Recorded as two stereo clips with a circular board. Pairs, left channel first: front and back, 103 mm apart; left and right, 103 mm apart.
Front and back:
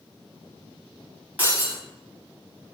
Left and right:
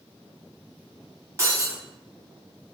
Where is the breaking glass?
120° right, 1.5 m.